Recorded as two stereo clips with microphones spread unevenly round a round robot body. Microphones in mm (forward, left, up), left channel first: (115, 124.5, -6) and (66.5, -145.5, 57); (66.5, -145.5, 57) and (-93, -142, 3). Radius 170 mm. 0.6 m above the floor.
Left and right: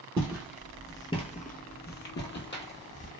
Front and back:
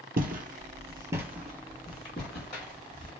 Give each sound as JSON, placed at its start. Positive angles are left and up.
{"t": 0.2, "sound": "footsteps", "azimuth_deg": -155, "distance_m": 0.7}